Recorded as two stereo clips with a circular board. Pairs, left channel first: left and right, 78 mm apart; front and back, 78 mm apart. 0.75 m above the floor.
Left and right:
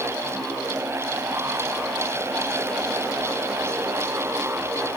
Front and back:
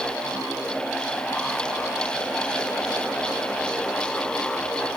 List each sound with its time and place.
Only background noise.